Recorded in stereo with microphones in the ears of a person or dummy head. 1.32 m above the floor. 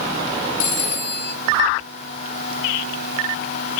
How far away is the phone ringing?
About 1.9 m.